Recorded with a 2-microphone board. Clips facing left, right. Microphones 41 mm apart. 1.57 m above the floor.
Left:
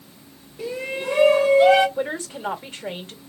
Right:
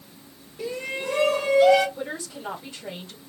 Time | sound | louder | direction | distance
0.6 | a shout | left 2 dB | 5° left (ahead or behind) | 1.6 m
2.0 | a woman speaking | left 6 dB | 55° left (ahead or behind) | 1.6 m